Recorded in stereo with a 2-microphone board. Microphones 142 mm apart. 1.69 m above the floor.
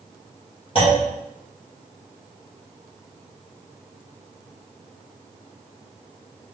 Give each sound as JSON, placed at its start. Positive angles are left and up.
{"t": 0.8, "sound": "a clunk", "side_deg": 40, "distance_m": 1.7}